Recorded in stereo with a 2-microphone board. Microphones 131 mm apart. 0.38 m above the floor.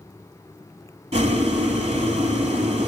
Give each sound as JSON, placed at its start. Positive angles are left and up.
{"t": 1.1, "sound": "boiling", "side_deg": -55, "distance_m": 1.0}